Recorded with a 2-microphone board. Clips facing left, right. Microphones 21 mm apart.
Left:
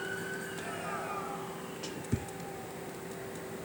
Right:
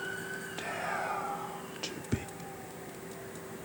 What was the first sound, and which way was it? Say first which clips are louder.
Whispering: right 7 dB; 40° right (ahead or behind).